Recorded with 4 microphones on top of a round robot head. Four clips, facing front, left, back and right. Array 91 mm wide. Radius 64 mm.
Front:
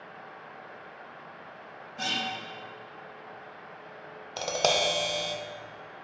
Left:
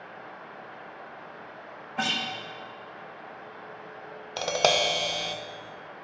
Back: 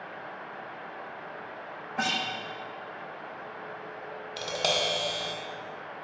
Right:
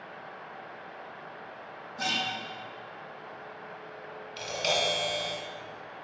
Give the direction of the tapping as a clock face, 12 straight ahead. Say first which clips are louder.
Left 6 dB, front 3 dB; 10 o'clock.